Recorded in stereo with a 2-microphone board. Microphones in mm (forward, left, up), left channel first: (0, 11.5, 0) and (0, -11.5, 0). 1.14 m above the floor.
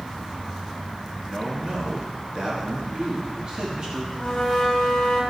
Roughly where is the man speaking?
Right.